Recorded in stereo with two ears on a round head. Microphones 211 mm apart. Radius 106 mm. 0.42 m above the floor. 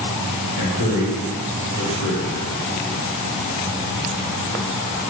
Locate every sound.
0.6 s a man speaking: 55° left (ahead or behind), 1.4 m